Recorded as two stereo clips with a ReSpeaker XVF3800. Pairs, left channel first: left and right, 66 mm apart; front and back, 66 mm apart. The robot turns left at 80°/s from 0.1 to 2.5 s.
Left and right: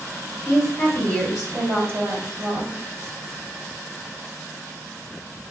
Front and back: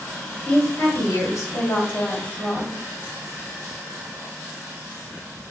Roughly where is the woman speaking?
Left.